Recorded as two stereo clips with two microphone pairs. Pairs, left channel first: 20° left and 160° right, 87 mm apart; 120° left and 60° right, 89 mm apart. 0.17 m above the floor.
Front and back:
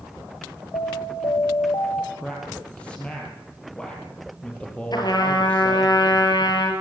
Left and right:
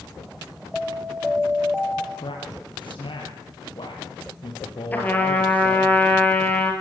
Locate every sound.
0.7 s an alarm: 35° left, 2 m
2.1 s a man speaking: 95° left, 4.5 m
4.9 s a trumpet: 50° left, 3.5 m